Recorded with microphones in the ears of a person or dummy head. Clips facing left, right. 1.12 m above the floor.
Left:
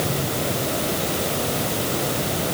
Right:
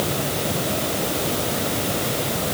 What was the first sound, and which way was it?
Only background noise.